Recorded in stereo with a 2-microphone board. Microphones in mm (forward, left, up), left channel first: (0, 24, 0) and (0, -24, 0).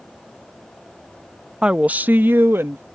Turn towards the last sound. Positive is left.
turn(degrees=-55)  # may be behind; listen again after turning